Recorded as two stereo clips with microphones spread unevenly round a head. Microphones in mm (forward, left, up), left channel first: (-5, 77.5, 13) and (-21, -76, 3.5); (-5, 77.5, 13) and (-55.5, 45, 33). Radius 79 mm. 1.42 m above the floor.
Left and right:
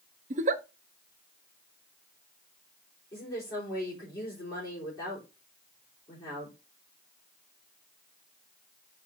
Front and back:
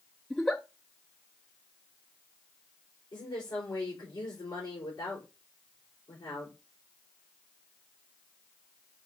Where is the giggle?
50° right, 0.5 m.